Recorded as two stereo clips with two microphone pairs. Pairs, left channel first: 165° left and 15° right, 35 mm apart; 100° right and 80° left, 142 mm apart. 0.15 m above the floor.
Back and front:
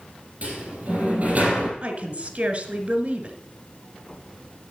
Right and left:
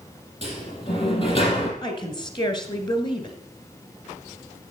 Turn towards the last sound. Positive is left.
turn(degrees=-55)